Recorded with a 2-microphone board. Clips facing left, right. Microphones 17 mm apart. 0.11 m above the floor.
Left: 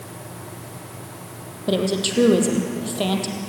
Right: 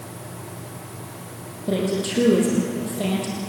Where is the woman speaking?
40° left (ahead or behind), 3.5 m.